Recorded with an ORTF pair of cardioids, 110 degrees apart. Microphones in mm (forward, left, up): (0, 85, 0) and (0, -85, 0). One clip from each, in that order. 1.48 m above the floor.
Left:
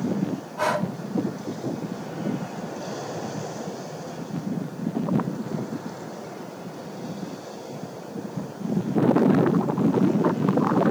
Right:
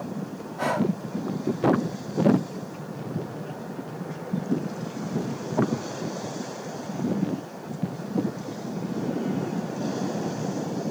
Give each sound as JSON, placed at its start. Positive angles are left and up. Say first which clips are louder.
{"t": 0.6, "sound": "breathing", "louder": "left 1 dB", "azimuth_deg": 40, "distance_m": 4.5}